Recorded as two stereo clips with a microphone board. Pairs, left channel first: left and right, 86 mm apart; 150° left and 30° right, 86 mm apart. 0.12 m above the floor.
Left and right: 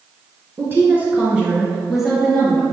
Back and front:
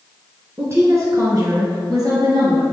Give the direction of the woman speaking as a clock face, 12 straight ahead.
2 o'clock.